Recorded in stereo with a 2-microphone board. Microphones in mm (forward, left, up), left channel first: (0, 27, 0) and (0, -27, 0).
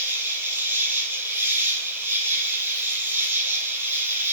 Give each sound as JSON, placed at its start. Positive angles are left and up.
{"t": 0.0, "sound": "an insect", "side_deg": -45, "distance_m": 3.5}